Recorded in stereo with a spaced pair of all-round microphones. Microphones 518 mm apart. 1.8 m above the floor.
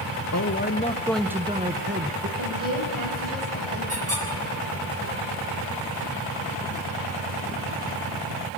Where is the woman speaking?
65° right (ahead or behind), 9 m.